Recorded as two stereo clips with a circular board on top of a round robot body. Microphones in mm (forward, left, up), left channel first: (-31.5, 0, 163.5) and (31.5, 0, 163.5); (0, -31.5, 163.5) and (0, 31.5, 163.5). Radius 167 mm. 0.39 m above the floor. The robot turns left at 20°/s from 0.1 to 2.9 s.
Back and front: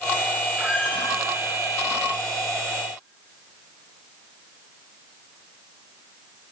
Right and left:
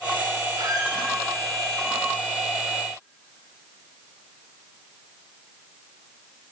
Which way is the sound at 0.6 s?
70° left.